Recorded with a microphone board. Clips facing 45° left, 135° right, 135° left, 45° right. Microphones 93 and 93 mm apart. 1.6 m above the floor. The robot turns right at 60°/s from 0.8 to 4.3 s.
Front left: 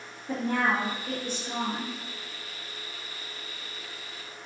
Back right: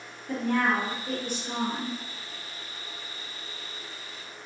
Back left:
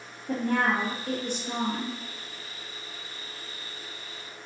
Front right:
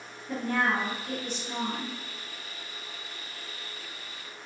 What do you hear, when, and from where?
0.3 s a woman speaking: 115° left, 1.8 m; by 2.0 s 175° right, 1.8 m